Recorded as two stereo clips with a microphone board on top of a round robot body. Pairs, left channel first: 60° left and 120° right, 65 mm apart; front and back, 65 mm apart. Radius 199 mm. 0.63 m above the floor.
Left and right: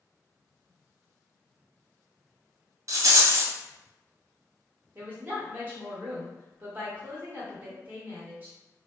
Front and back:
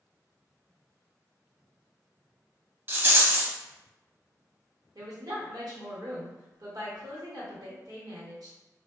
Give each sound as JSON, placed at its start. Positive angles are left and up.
{"t": 2.9, "sound": "a rattle", "azimuth_deg": -135, "distance_m": 1.0}
{"t": 5.0, "sound": "a woman speaking", "azimuth_deg": 180, "distance_m": 1.4}